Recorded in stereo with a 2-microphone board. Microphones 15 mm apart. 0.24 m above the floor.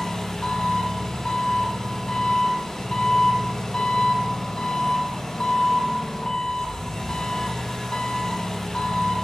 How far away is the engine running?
About 0.9 m.